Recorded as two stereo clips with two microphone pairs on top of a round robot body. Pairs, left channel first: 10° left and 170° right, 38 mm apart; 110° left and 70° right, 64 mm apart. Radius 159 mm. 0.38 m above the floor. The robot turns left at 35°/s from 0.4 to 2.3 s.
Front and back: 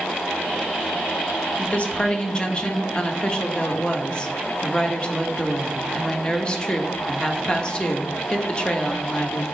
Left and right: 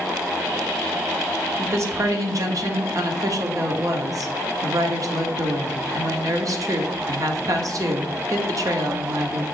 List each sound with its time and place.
1.6 s a woman speaking: 20° right, 1.3 m; by 9.4 s 45° right, 1.3 m